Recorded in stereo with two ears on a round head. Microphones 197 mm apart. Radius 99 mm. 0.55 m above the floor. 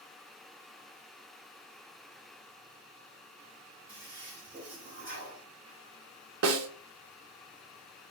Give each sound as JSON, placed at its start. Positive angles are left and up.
{"t": 3.9, "sound": "a toilet flushing", "side_deg": -40, "distance_m": 2.5}
{"t": 6.4, "sound": "a snare drum", "side_deg": -65, "distance_m": 0.7}